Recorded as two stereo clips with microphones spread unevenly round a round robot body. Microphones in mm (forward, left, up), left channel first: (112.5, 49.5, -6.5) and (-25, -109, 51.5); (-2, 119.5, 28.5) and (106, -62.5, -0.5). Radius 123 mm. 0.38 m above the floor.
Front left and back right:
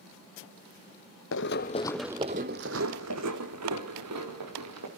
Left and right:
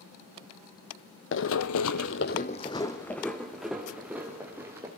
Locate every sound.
1.3 s running footsteps: 95° left, 1.2 m; by 4.9 s 140° right, 4 m